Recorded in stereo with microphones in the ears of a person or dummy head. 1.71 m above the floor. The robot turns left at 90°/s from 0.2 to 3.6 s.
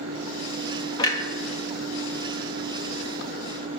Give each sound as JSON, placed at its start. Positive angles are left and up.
{"t": 1.0, "sound": "a clunk", "side_deg": 30, "distance_m": 0.8}